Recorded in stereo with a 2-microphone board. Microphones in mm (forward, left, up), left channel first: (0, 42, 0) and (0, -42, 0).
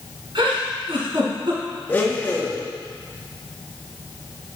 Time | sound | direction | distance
0.3 | a giggle | 75° right (ahead or behind) | 2.5 m
1.9 | a blender | 25° left (ahead or behind) | 1.3 m